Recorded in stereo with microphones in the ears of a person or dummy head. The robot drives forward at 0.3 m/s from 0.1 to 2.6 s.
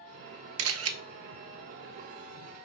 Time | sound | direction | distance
0.6 | a camera shutter | 75° right (ahead or behind) | 0.5 m